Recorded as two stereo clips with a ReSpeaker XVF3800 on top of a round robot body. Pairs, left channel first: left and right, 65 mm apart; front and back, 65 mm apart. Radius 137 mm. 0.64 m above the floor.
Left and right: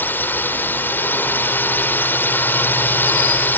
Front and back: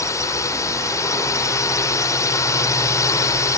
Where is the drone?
35° left.